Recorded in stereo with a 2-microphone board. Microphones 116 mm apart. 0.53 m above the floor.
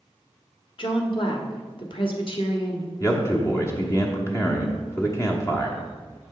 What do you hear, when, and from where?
0.8 s a woman speaking: 50° left (ahead or behind), 1.2 m
3.0 s a man speaking: 30° left (ahead or behind), 1.0 m